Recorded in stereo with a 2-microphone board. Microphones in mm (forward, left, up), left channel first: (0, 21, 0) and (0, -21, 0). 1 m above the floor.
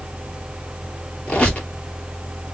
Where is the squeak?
35° left (ahead or behind), 1.3 m.